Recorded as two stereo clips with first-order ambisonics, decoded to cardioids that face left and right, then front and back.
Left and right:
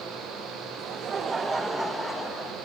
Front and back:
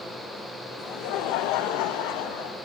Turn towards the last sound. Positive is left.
turn(degrees=15)